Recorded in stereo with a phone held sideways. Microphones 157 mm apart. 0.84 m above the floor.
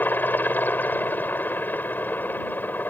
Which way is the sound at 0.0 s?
10° left (ahead or behind).